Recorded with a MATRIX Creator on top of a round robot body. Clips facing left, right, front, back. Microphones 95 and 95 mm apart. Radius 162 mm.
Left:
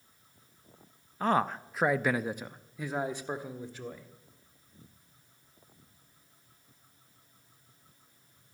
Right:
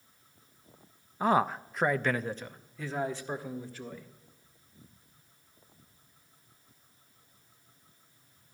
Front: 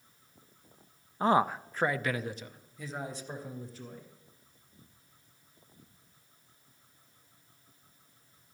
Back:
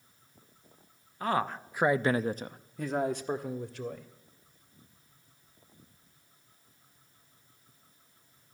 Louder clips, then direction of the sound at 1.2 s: Right 2 dB, front 4 dB; 20° right.